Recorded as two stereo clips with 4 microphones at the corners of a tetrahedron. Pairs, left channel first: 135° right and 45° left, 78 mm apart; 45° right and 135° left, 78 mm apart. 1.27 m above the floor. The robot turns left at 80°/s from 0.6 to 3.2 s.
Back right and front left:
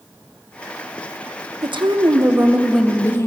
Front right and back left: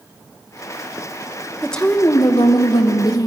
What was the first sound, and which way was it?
A woman speaking, 45° left.